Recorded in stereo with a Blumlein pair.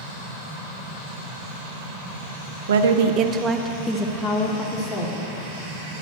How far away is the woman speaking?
About 0.6 m.